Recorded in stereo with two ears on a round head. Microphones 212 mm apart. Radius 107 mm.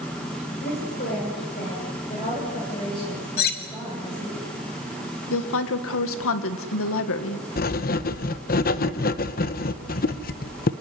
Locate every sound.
0.6 s a woman speaking: 40° left (ahead or behind), 6.5 m; by 4.4 s 15° left (ahead or behind), 10.5 m
3.4 s cutlery clinking: 40° left (ahead or behind), 2.5 m
5.3 s a woman speaking: 65° left (ahead or behind), 2 m
7.6 s writing: 40° left (ahead or behind), 1.0 m